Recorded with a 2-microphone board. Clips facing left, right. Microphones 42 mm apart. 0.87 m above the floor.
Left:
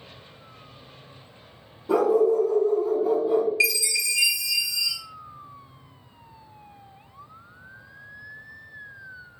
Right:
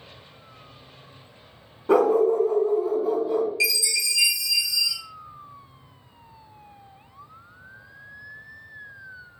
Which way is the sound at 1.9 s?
55° right (ahead or behind).